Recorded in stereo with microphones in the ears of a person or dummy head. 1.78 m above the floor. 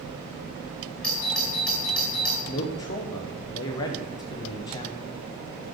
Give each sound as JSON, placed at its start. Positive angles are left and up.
{"t": 1.0, "sound": "a doorbell", "side_deg": 10, "distance_m": 2.5}
{"t": 2.5, "sound": "a man speaking", "side_deg": 20, "distance_m": 0.8}